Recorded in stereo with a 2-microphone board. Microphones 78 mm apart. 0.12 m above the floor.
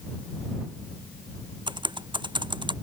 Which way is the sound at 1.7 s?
80° right.